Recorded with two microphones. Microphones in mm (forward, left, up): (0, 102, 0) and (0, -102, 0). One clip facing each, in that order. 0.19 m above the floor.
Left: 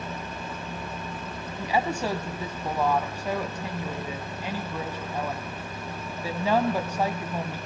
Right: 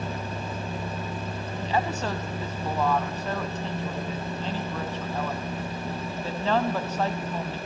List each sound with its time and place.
1.6 s a woman speaking: 10° left (ahead or behind), 1.1 m